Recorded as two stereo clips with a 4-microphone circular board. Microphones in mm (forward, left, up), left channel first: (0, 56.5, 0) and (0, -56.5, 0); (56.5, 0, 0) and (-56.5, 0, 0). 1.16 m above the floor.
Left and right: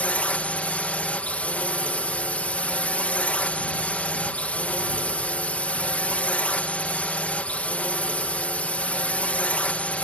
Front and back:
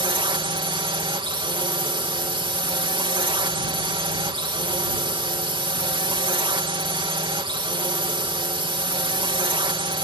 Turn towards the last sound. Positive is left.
turn(degrees=165)